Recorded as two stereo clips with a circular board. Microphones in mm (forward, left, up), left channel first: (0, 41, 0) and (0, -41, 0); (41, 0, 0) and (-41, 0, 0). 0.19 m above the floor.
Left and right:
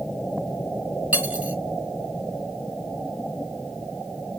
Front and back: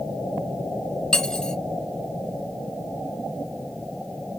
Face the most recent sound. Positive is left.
turn(degrees=-65)